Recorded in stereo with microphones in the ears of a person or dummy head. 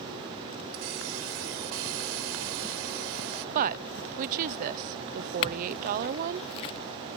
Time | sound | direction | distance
0.7 | a hiss | 70° right (ahead or behind) | ?
3.5 | a woman speaking | 45° right (ahead or behind) | ?
5.4 | a clink | 25° left (ahead or behind) | ?